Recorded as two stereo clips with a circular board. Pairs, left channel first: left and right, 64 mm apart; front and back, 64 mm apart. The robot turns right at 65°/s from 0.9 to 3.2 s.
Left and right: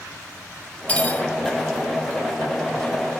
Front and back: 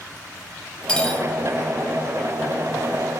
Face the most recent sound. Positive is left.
turn(degrees=-155)